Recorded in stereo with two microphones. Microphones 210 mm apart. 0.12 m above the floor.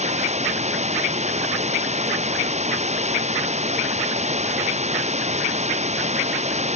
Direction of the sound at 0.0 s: 35° right (ahead or behind).